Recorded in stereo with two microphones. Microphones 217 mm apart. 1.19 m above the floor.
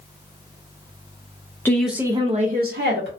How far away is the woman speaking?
About 0.6 m.